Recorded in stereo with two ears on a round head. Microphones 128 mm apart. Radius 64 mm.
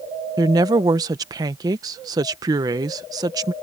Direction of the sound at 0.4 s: 25° right (ahead or behind).